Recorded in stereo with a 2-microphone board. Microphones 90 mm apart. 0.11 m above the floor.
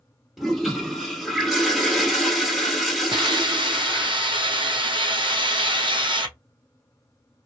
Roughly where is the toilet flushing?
Centre.